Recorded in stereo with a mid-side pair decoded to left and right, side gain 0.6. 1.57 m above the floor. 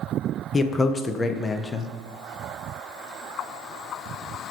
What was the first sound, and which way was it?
A man speaking, 25° left.